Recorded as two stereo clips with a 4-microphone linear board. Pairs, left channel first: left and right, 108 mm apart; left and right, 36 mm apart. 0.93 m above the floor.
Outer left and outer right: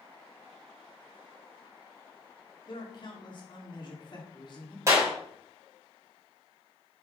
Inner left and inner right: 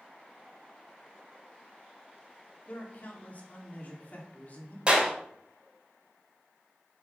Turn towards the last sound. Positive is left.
turn(degrees=-30)  # may be behind; listen again after turning